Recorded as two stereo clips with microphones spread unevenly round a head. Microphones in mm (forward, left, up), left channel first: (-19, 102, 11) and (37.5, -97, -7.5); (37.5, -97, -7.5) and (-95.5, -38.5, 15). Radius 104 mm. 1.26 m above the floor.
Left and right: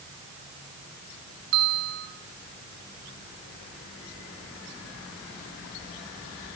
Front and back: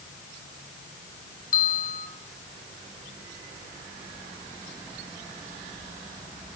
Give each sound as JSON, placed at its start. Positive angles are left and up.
{"t": 1.5, "sound": "a bell", "azimuth_deg": -55, "distance_m": 4.0}